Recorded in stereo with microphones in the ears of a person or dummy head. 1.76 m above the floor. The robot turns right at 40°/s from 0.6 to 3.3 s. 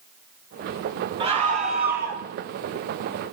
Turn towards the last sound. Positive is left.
turn(degrees=-65)